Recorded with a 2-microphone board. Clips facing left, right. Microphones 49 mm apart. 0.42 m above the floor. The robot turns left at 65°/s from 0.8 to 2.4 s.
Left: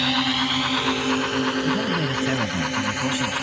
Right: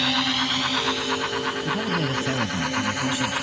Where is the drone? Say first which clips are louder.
Left 1 dB; 5° left (ahead or behind); by 3.4 s 40° left (ahead or behind).